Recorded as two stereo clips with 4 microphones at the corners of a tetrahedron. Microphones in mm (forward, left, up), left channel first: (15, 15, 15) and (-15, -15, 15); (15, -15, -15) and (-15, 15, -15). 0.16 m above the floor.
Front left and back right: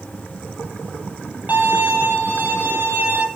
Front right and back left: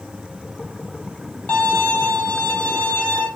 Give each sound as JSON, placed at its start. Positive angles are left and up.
{"t": 1.5, "sound": "a violin", "azimuth_deg": -90, "distance_m": 4.0}